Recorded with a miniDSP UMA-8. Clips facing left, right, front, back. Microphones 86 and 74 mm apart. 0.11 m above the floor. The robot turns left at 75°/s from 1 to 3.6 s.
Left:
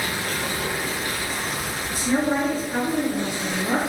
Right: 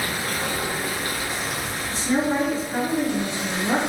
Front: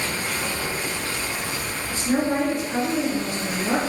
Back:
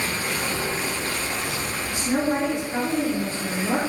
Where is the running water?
140° right, 1.2 m; by 3.9 s 25° left, 1.2 m.